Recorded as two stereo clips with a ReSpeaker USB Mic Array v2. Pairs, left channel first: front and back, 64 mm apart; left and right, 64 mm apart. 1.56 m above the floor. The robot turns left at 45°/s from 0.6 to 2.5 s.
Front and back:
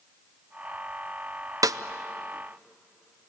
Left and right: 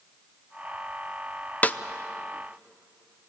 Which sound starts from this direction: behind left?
A snare drum, at 1.6 s.